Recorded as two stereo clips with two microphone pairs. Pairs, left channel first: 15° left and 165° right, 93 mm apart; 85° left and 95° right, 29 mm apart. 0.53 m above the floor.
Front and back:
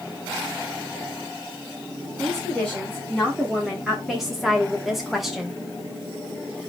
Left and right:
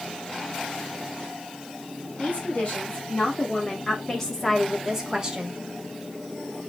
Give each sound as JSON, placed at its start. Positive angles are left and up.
{"t": 2.2, "sound": "a woman speaking", "azimuth_deg": 110, "distance_m": 1.8}